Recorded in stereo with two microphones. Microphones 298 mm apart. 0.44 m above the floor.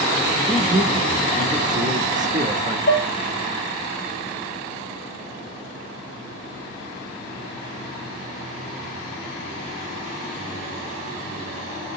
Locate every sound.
0.5 s a man speaking: 25° right (ahead or behind), 0.9 m
2.9 s dishes clattering: 40° left (ahead or behind), 0.6 m